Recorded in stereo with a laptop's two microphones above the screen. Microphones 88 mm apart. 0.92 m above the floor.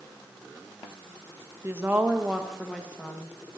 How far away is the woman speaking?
About 1.0 m.